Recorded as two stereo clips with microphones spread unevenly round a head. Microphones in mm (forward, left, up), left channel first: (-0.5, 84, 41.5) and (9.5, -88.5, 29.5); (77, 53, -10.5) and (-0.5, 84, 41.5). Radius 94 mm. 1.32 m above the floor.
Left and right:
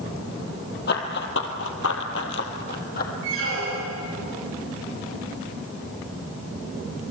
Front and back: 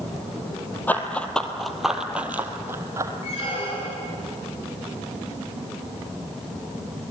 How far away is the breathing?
No breathing in this recording.